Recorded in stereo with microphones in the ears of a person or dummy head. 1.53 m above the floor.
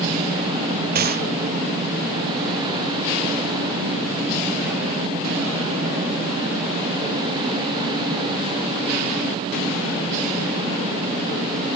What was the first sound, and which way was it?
A gunshot, 50° right (ahead or behind).